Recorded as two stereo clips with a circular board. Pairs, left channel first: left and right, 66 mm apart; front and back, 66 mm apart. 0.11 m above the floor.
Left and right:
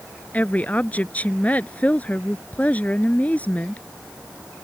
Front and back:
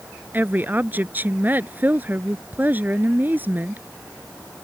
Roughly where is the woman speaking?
Behind left.